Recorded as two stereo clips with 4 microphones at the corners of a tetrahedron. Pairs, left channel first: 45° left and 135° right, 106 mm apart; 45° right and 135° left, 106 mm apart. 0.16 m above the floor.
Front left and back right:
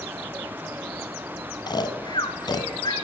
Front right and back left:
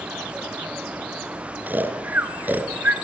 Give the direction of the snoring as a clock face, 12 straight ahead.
10 o'clock.